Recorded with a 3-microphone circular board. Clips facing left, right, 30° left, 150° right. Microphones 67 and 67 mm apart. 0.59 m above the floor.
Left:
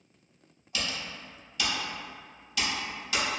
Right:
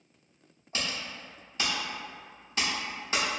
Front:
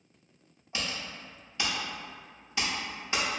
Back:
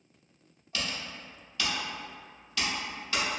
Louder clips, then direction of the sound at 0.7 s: Even, even; 35° right.